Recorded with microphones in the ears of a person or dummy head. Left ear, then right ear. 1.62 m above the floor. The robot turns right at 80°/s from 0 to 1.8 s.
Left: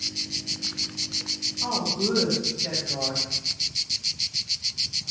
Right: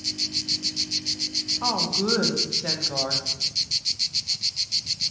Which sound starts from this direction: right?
A woman speaking, at 1.6 s.